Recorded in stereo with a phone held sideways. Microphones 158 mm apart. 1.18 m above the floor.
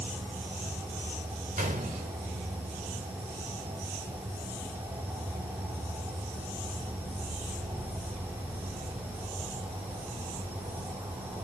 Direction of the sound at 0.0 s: 15° right (ahead or behind).